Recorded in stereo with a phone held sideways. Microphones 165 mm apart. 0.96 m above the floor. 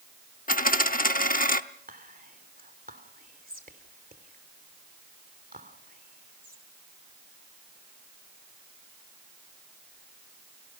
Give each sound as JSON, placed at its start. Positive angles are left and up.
{"t": 0.5, "sound": "a dropped coin", "side_deg": 55, "distance_m": 0.8}
{"t": 1.9, "sound": "whispering", "side_deg": -60, "distance_m": 3.0}